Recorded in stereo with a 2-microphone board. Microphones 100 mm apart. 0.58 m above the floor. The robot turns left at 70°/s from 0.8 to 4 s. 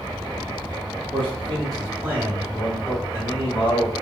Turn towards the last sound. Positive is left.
turn(degrees=70)